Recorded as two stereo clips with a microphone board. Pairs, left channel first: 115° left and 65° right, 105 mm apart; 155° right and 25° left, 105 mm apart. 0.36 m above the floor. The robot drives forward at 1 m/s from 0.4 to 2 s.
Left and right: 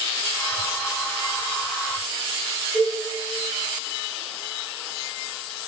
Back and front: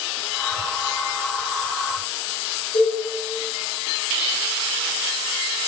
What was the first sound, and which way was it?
A cowbell, 150° right.